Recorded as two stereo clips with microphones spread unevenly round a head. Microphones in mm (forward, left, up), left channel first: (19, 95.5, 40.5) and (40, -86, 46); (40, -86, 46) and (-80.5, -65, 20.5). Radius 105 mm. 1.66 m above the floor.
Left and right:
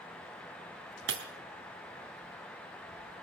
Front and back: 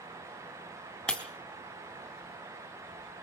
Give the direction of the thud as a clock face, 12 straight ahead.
No thud in this recording.